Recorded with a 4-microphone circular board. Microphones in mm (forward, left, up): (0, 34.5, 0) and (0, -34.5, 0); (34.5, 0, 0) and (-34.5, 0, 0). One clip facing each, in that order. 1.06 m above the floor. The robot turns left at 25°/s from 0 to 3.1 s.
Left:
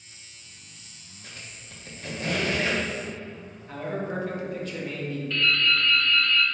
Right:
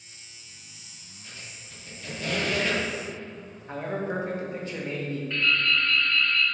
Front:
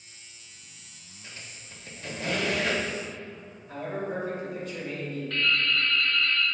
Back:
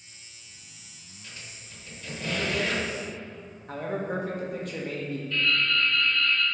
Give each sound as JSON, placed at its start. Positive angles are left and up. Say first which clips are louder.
{"t": 1.2, "sound": "a squeak", "louder": "left 1 dB, front 1 dB", "azimuth_deg": 65, "distance_m": 1.3}
{"t": 3.7, "sound": "a man speaking", "louder": "right 1 dB, back 2 dB", "azimuth_deg": -155, "distance_m": 1.3}
{"t": 5.3, "sound": "dripping", "louder": "left 1 dB, even", "azimuth_deg": -25, "distance_m": 1.5}